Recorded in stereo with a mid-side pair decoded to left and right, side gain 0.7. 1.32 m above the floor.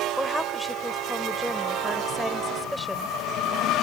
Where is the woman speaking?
Straight ahead.